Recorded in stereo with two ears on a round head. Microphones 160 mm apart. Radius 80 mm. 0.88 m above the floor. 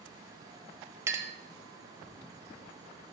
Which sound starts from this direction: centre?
A clink, at 1.1 s.